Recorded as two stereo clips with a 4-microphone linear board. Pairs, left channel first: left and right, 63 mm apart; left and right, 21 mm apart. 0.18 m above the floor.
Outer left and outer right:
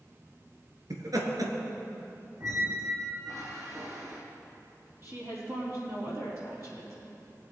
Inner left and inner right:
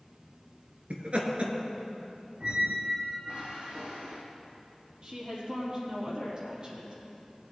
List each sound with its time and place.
0.9 s laughter: 65° right (ahead or behind), 2.5 m
2.4 s a squeak: 55° right (ahead or behind), 3.5 m
5.0 s a woman speaking: 45° right (ahead or behind), 5 m